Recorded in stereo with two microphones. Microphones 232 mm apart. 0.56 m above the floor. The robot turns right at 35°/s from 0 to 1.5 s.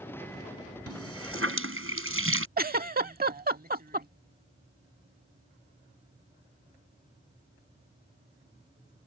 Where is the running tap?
85° right; by 2.5 s 65° right (ahead or behind).